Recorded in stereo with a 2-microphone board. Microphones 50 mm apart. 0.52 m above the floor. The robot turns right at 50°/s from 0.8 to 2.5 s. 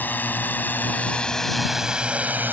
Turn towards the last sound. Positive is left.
turn(degrees=-40)  # may be behind; listen again after turning